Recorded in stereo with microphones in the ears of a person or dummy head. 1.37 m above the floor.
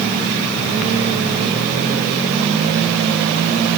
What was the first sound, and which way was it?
Only background noise.